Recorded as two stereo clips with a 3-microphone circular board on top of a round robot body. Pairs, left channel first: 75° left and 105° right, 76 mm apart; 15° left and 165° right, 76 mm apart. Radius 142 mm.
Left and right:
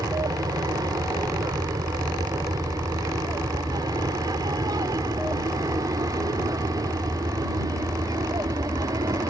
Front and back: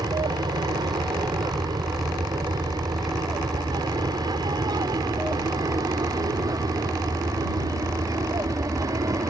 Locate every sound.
0.0 s an aircraft: 140° right; by 9.3 s 135° right